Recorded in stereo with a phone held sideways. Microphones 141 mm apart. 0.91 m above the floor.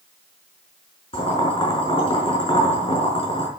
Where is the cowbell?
I don't hear a cowbell.